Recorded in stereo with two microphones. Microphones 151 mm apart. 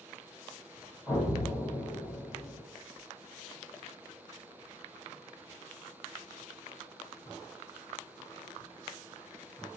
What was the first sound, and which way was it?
An explosion, 20° left (ahead or behind).